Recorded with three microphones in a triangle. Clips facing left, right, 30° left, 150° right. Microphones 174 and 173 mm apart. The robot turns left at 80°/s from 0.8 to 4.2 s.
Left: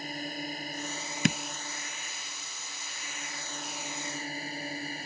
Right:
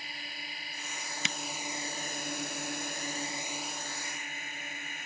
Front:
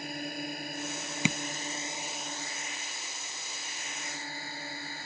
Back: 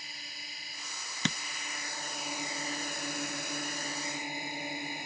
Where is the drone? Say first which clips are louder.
Left 11 dB, front 17 dB; 50° left; by 5.1 s 140° left.